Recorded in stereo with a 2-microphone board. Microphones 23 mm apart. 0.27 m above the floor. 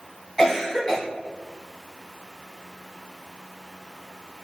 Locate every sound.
0.4 s a cough: 15° left (ahead or behind), 2.5 m